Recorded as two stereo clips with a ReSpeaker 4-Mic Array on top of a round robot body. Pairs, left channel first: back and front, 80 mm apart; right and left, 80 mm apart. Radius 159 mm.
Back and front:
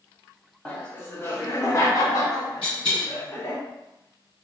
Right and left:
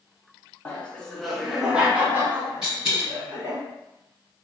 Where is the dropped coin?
170° left, 1.0 m.